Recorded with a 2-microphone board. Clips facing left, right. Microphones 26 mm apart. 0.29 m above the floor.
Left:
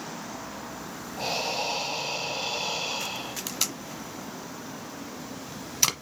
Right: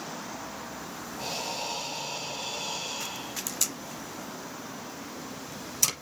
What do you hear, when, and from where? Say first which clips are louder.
1.2 s breathing: left 5 dB; 35° left (ahead or behind), 1.1 m
3.5 s tape being pulled: left 2 dB; 35° left (ahead or behind), 1.1 m